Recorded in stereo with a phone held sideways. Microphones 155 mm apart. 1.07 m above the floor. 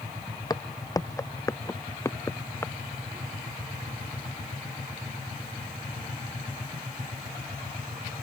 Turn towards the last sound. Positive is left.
turn(degrees=15)  # may be behind; listen again after turning